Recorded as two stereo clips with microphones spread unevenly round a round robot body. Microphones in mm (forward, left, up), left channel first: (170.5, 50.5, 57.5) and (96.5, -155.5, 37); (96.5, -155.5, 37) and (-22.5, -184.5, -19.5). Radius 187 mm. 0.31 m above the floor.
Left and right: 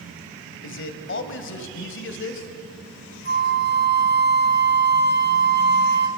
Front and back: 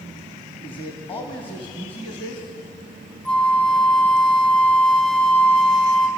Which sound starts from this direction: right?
A flute, at 3.2 s.